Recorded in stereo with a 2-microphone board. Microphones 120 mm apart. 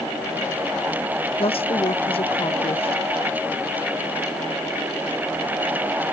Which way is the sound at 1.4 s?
50° left (ahead or behind).